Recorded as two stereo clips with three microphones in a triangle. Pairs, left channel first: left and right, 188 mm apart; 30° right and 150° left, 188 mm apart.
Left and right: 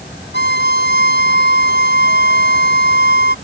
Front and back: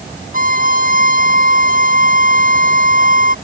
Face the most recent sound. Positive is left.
turn(degrees=110)